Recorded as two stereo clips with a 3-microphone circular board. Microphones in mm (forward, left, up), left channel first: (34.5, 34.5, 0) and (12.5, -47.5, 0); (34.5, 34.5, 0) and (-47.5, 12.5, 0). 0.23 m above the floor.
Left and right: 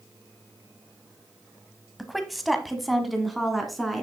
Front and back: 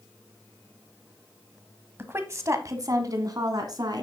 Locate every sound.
2.0 s a woman speaking: 165° left, 1.2 m